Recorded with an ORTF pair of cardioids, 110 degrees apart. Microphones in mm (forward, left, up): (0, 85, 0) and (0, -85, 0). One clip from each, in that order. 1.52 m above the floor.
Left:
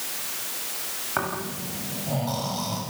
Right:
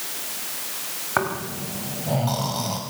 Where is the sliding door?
I don't hear a sliding door.